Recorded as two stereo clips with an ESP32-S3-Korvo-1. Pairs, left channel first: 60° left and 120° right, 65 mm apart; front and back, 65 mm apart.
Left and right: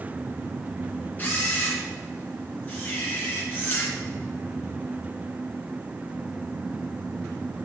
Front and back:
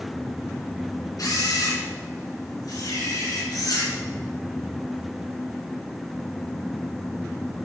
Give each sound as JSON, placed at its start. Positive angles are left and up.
{"t": 1.2, "sound": "a camera shutter", "azimuth_deg": -5, "distance_m": 3.5}